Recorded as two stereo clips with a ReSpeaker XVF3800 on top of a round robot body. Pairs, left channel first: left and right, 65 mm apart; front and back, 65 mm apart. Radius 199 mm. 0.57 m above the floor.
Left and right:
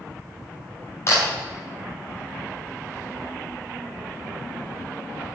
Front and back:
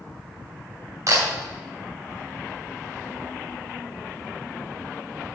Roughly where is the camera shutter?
Behind left.